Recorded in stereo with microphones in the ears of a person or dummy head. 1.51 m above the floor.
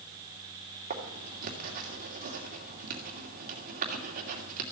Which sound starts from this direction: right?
Writing, at 0.9 s.